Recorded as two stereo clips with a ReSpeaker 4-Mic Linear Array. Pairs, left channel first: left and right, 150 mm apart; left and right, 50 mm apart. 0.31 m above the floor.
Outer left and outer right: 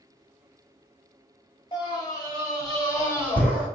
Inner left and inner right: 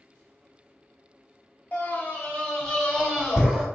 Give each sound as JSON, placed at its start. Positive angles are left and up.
{"t": 1.7, "sound": "a scream", "side_deg": 35, "distance_m": 1.0}